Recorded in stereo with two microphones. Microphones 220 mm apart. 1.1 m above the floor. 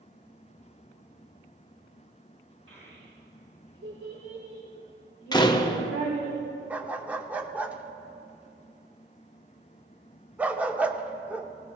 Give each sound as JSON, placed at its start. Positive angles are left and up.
{"t": 2.7, "sound": "a child speaking", "side_deg": -80, "distance_m": 4.0}
{"t": 5.3, "sound": "a door slam", "side_deg": 20, "distance_m": 0.8}
{"t": 6.7, "sound": "a dog barking", "side_deg": -5, "distance_m": 0.7}